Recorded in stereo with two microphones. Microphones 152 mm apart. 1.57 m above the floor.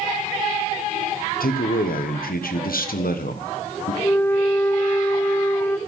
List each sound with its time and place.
1.4 s a man speaking: 85° left, 1.2 m
4.0 s a flute: 15° left (ahead or behind), 0.6 m